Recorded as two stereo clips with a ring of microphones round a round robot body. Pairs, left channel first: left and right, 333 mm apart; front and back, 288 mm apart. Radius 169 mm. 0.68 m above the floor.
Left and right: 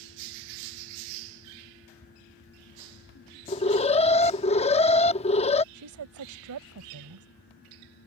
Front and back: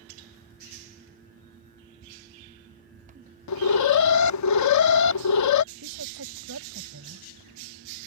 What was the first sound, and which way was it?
An alarm, 20° left.